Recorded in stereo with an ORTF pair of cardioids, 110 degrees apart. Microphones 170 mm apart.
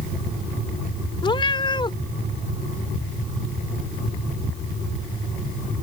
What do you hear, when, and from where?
1.2 s a cat meowing: 30° left